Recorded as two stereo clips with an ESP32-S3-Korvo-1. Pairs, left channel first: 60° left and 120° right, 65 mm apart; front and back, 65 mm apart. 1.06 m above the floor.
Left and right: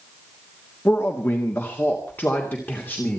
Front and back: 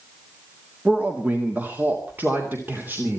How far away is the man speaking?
About 1.6 m.